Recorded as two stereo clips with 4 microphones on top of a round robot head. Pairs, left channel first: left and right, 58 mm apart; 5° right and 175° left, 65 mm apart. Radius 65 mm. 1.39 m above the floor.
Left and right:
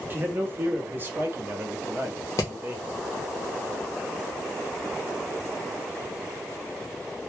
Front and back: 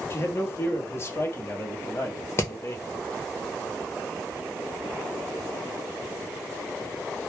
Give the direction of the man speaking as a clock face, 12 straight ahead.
1 o'clock.